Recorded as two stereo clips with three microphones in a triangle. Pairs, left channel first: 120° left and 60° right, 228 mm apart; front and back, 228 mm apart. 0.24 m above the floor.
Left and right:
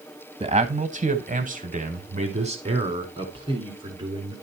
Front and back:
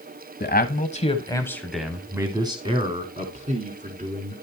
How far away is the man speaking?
About 1.3 m.